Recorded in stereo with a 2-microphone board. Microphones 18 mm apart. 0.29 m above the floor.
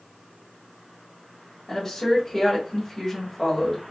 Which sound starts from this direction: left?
A woman speaking, at 1.7 s.